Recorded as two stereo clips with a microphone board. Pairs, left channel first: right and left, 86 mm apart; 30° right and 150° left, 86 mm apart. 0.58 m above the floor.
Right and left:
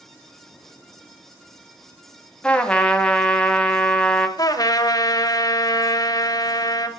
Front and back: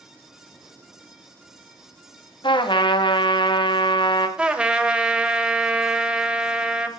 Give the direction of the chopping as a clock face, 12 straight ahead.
I don't hear chopping.